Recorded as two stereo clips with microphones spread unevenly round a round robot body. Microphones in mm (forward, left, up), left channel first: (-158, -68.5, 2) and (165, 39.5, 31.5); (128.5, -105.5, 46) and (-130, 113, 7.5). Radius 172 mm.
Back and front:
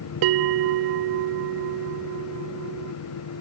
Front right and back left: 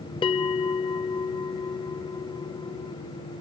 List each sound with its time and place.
0.2 s a bell: 40° left